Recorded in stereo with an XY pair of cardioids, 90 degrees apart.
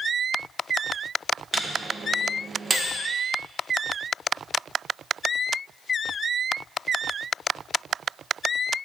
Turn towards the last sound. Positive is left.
turn(degrees=-35)